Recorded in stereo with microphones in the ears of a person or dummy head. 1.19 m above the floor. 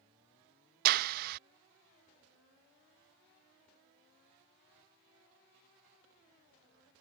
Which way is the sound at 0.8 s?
50° right (ahead or behind).